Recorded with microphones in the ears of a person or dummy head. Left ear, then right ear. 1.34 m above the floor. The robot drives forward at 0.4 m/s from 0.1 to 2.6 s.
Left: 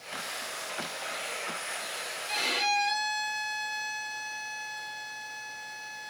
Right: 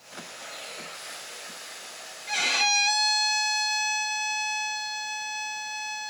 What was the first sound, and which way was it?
A violin, 75° right (ahead or behind).